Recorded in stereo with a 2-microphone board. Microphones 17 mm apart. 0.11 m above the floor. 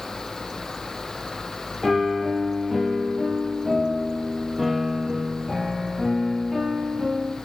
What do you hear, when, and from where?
1.8 s a piano: centre (ahead or behind), 1.9 m